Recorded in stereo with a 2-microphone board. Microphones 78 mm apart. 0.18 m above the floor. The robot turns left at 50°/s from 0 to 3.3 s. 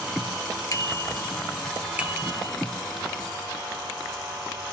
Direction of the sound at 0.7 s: 45° left (ahead or behind).